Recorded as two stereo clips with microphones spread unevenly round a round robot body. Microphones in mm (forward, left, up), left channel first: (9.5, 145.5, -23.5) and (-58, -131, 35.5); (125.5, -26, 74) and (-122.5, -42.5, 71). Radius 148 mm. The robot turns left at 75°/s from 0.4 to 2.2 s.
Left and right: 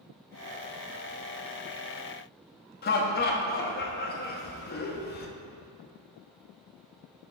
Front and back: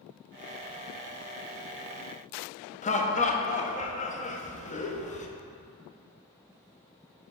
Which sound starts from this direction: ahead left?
Laughter, at 2.8 s.